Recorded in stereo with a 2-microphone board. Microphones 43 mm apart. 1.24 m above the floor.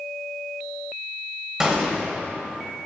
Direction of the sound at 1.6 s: 15° right (ahead or behind).